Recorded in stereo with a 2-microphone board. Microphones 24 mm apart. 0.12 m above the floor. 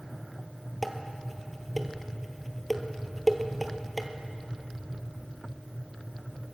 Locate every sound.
0.8 s dishes clattering: centre (ahead or behind), 1.6 m